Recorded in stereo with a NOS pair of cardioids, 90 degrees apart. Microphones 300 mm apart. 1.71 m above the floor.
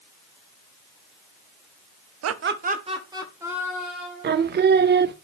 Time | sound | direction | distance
2.2 | laughter | 60° right | 0.9 m
4.2 | singing | 35° right | 0.6 m